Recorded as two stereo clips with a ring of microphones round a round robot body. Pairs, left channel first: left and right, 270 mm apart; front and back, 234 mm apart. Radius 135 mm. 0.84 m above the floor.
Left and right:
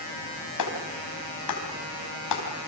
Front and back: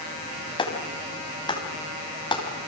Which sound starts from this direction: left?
A clap, at 0.6 s.